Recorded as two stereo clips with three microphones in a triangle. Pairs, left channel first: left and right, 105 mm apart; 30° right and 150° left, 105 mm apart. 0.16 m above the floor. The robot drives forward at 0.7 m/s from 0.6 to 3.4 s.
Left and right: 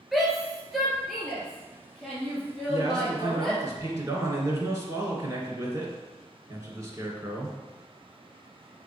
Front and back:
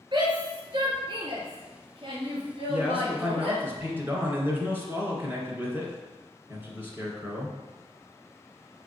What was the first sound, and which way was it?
A shout, 175° right.